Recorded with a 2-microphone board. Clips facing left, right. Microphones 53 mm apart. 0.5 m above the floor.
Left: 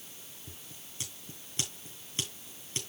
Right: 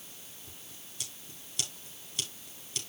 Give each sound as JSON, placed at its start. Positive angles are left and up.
{"t": 0.5, "sound": "scissors", "side_deg": 30, "distance_m": 5.0}